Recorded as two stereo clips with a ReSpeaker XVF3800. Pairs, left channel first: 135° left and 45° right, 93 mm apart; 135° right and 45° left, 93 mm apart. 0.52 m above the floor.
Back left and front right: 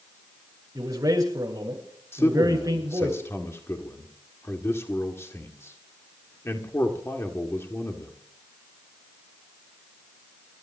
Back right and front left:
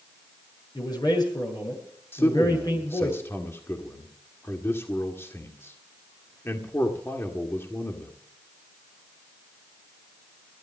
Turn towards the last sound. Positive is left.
turn(degrees=180)